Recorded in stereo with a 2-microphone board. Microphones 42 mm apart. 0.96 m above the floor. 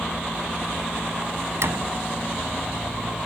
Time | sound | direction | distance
1.6 | a door slam | 70° right (ahead or behind) | ?